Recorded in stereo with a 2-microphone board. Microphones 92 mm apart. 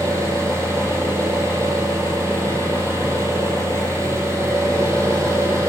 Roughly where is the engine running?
Right.